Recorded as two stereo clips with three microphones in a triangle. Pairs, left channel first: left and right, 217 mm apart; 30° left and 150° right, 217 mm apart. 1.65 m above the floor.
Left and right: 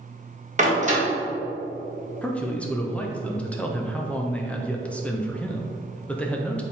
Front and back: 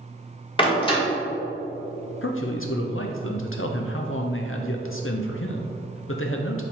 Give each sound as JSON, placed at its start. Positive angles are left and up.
{"t": 0.6, "sound": "a door slam", "azimuth_deg": -35, "distance_m": 1.8}
{"t": 2.2, "sound": "a man speaking", "azimuth_deg": 5, "distance_m": 0.7}